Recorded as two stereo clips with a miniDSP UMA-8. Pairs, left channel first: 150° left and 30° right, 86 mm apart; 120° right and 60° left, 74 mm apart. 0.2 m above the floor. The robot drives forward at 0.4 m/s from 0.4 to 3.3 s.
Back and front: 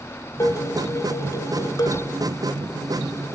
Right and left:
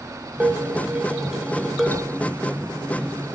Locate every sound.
0.4 s dishes clattering: 125° left, 0.9 m; by 2.1 s 160° left, 1.3 m
1.9 s a sliding door: 110° right, 4.5 m